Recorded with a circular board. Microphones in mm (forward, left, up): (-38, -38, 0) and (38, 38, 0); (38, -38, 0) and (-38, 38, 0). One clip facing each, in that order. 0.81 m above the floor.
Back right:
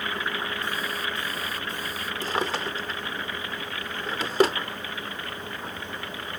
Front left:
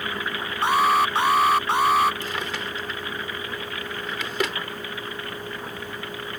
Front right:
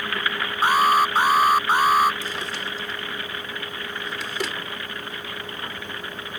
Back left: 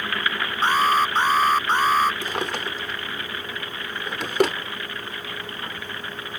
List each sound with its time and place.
0.6 s an alarm: 35° left
2.2 s a drawer: 170° left